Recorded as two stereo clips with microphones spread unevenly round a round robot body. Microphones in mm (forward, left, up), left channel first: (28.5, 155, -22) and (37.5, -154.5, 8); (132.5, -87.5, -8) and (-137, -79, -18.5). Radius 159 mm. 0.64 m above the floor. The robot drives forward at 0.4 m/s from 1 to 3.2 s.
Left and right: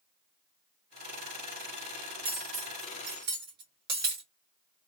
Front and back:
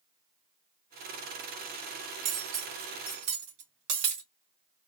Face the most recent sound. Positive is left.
turn(degrees=-150)